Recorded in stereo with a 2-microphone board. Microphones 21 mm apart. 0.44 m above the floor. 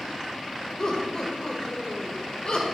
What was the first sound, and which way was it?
Laughter, 45° left (ahead or behind).